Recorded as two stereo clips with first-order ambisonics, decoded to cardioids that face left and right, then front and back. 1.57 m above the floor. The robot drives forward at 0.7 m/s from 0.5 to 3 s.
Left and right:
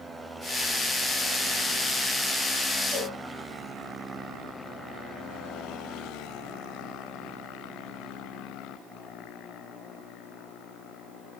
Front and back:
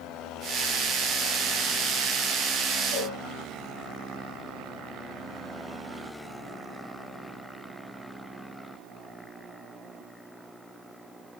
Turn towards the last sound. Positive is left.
turn(degrees=-175)